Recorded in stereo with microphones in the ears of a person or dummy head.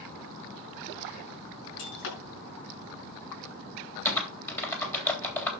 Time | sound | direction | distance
1.8 | breaking glass | 70° left (ahead or behind) | 6.5 m
4.0 | typing on a keyboard | 15° left (ahead or behind) | 3 m